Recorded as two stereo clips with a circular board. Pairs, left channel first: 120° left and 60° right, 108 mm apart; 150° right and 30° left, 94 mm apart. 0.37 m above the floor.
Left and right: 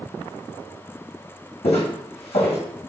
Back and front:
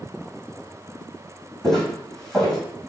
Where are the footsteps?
125° left, 1.2 m.